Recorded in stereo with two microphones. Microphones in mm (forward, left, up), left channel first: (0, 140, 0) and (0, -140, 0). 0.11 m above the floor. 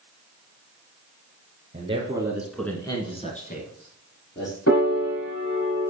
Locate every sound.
1.7 s a man speaking: 25° right (ahead or behind), 1.8 m; by 4.6 s 40° left (ahead or behind), 3 m
4.7 s a piano: 60° left (ahead or behind), 4.5 m